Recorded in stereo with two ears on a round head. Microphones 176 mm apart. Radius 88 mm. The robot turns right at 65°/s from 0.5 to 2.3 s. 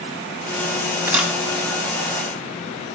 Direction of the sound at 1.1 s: 10° right (ahead or behind).